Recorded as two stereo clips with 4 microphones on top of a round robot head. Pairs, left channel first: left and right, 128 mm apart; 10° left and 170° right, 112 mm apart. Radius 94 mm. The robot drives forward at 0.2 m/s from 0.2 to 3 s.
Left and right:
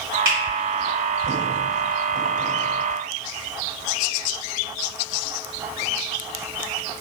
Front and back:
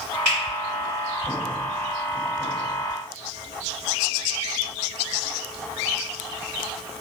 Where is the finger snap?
125° right, 1.5 m.